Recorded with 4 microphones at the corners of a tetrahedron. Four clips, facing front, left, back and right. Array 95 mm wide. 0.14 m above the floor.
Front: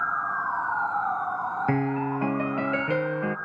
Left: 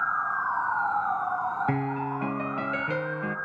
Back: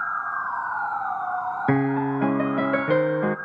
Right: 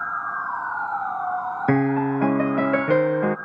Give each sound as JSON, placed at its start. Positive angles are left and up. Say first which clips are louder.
{"t": 1.7, "sound": "a piano", "louder": "right 8 dB, back 6 dB", "azimuth_deg": -120, "distance_m": 0.6}